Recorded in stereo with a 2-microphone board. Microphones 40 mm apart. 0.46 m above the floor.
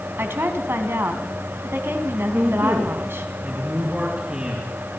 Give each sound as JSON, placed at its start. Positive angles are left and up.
{"t": 0.2, "sound": "a woman speaking", "side_deg": -75, "distance_m": 3.0}
{"t": 2.3, "sound": "a man speaking", "side_deg": -30, "distance_m": 4.0}